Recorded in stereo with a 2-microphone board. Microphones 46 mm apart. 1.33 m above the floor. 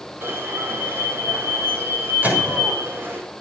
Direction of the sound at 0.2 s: 55° right (ahead or behind).